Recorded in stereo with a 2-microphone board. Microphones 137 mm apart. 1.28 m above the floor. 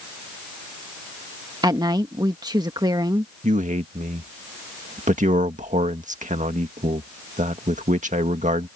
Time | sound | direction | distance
1.6 | a woman speaking | 30° right (ahead or behind) | ?
3.4 | a man speaking | 65° right (ahead or behind) | ?